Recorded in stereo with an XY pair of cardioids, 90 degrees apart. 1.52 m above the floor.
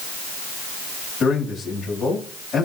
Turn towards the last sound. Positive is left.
turn(degrees=70)